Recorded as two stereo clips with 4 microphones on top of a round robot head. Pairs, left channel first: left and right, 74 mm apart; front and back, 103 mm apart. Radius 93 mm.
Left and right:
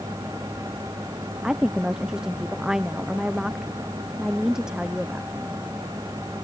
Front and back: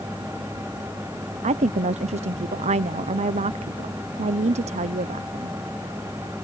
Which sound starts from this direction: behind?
A woman speaking, at 1.4 s.